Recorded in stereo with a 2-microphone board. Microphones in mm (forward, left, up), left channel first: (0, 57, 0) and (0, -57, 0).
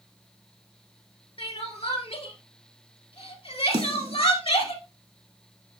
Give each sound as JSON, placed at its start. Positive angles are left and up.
{"t": 1.4, "sound": "crying", "side_deg": 55, "distance_m": 2.5}
{"t": 3.7, "sound": "a snare drum", "side_deg": -50, "distance_m": 1.6}